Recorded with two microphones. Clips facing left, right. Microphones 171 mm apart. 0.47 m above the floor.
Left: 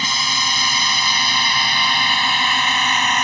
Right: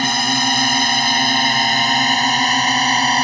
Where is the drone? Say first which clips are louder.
Right 8 dB; 55° right (ahead or behind); by 3.2 s 35° right (ahead or behind).